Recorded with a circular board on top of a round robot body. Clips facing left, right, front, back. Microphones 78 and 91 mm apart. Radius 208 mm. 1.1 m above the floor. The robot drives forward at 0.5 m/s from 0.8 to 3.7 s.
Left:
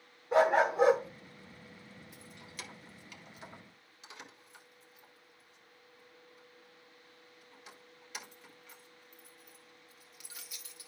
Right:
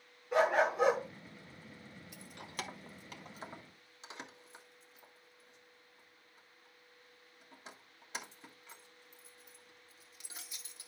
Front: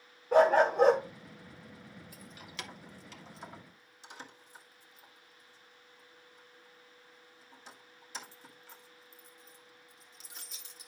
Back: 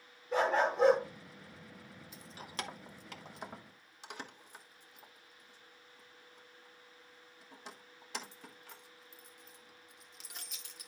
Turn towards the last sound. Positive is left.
turn(degrees=-150)